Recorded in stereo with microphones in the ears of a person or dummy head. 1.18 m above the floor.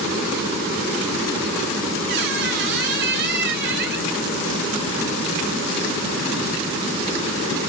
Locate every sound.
2.1 s a squeak: 45° right (ahead or behind), 0.8 m